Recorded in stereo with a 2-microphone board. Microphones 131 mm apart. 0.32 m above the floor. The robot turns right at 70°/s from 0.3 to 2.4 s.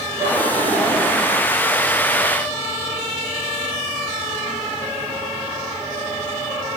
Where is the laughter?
160° right, 6 m; by 1.4 s 85° right, 6 m.